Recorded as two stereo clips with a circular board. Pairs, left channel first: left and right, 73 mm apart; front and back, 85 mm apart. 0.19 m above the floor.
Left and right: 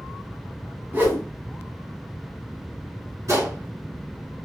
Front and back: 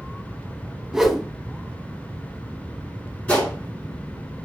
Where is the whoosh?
105° right, 0.8 m.